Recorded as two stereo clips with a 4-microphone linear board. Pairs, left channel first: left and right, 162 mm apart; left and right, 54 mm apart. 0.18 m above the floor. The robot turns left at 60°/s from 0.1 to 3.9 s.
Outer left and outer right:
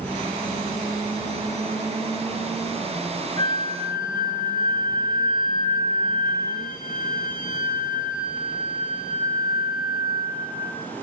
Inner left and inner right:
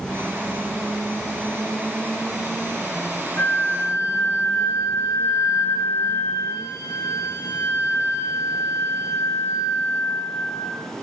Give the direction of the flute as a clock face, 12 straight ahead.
7 o'clock.